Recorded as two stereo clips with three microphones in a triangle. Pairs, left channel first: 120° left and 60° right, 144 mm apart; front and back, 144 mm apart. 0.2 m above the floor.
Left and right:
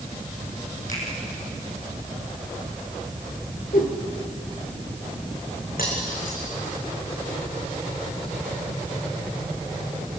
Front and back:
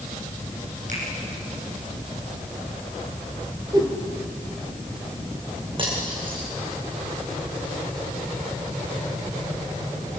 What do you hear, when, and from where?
0.9 s a finger snap: 150° left, 8.5 m
3.7 s a whoosh: 115° left, 4 m
5.8 s cutlery clinking: 125° left, 7.5 m